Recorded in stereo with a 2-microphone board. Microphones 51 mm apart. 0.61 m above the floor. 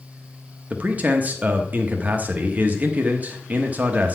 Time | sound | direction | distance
0.7 | a man speaking | 30° right (ahead or behind) | 0.8 m